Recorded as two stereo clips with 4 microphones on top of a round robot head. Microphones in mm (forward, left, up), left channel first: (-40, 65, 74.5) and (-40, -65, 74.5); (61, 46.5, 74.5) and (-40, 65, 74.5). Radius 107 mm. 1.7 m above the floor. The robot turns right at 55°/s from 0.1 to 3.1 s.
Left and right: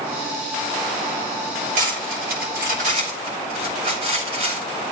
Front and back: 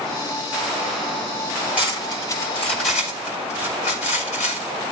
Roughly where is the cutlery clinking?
Right.